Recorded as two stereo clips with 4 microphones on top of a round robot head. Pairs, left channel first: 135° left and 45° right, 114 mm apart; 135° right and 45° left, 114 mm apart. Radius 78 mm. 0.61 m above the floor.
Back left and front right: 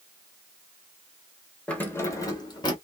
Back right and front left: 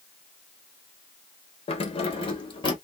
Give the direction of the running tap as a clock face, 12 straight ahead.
No running tap in this recording.